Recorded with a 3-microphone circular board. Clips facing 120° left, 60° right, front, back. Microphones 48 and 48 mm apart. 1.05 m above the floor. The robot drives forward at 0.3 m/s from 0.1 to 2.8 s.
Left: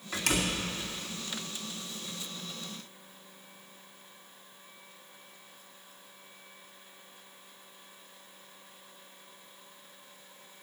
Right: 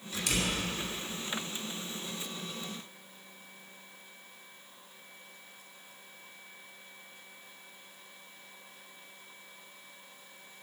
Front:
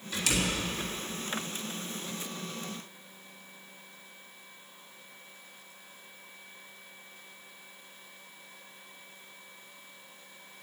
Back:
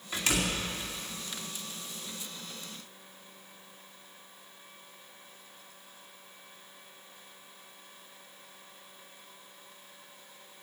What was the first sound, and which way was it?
A door slam, 120° left.